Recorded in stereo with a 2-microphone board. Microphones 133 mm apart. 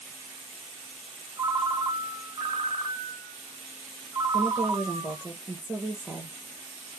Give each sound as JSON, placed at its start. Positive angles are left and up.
{"t": 1.4, "sound": "a ringtone", "side_deg": -35, "distance_m": 1.0}
{"t": 4.3, "sound": "a woman speaking", "side_deg": -10, "distance_m": 0.7}